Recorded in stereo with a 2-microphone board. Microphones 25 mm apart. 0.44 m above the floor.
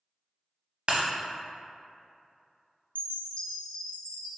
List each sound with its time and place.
0.9 s breaking glass: 45° right (ahead or behind), 0.6 m
3.0 s a chime: 65° left (ahead or behind), 0.5 m